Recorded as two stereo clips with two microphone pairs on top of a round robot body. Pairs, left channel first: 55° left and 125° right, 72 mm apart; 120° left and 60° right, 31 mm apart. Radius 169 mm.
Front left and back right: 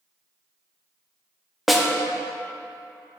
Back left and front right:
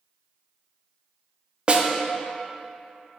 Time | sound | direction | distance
1.7 | a snare drum | 50° right | 0.9 m